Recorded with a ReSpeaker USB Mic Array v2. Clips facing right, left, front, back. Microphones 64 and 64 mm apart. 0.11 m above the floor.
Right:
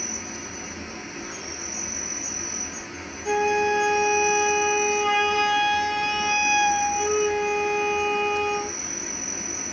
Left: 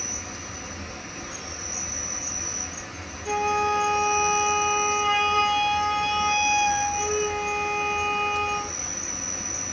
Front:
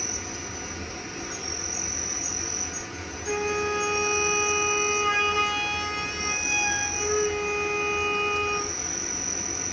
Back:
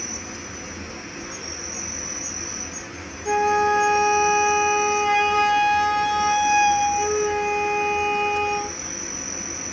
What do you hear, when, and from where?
0.0 s an insect: 135° right, 1.1 m
3.2 s a flute: 155° right, 1.3 m